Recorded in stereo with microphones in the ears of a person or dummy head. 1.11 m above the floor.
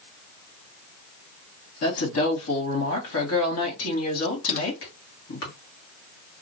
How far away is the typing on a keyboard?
About 0.8 m.